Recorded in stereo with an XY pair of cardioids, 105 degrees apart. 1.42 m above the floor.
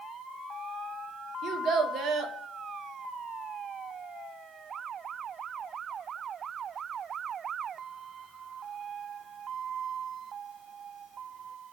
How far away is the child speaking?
About 0.5 m.